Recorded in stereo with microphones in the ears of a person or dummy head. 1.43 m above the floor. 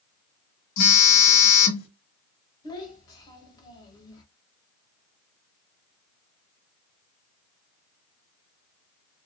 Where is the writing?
No writing in this recording.